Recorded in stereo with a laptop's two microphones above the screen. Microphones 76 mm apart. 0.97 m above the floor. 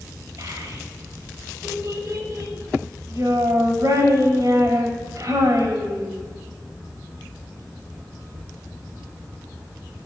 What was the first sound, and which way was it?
A child speaking, 50° right (ahead or behind).